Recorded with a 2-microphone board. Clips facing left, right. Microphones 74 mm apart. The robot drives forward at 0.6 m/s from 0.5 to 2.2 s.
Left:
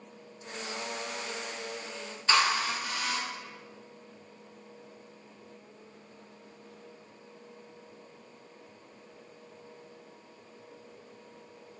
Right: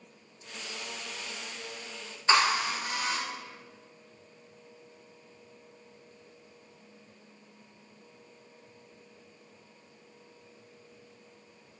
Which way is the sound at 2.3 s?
25° right (ahead or behind).